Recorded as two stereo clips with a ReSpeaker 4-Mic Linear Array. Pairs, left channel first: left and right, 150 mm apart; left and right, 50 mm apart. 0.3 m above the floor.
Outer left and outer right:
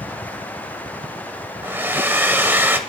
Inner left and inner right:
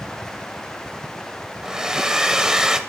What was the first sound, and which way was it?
A hair dryer, 15° right (ahead or behind).